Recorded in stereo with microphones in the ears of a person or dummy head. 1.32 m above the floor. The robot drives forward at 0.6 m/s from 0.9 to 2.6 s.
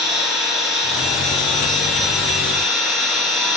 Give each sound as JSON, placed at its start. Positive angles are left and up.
{"t": 0.0, "sound": "an engine running", "side_deg": -5, "distance_m": 3.0}